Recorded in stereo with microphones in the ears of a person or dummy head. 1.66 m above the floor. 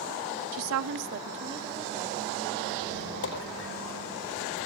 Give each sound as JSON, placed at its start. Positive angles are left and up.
{"t": 0.5, "sound": "a woman speaking", "side_deg": -80, "distance_m": 1.0}
{"t": 2.8, "sound": "a squeak", "side_deg": 70, "distance_m": 4.0}